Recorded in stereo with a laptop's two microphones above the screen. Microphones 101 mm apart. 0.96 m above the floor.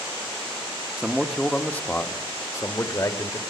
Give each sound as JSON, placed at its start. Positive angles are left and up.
{"t": 1.0, "sound": "a man speaking", "side_deg": -10, "distance_m": 1.0}